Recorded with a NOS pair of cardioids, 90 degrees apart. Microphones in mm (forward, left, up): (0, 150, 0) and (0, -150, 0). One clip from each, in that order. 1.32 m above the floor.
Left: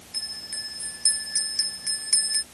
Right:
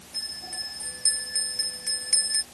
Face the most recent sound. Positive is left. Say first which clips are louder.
# left 1 dB
turn(degrees=20)